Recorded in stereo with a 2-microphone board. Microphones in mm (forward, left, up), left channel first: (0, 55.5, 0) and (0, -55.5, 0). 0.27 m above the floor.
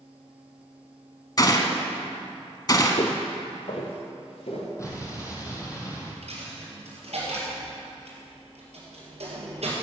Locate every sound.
1.4 s a gunshot: 35° left (ahead or behind), 0.9 m
3.0 s footsteps: 65° left (ahead or behind), 0.8 m; by 4.7 s 60° left (ahead or behind), 3 m
4.8 s an explosion: 25° left (ahead or behind), 1.9 m
6.2 s a dropped coin: 65° right (ahead or behind), 3 m